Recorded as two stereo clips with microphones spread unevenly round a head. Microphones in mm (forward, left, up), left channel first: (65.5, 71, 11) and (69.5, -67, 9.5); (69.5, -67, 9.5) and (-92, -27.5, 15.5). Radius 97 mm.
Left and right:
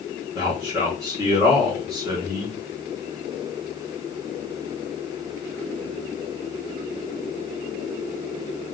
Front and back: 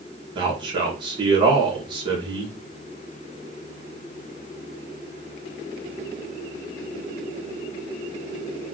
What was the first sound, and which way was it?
A man speaking, 140° right.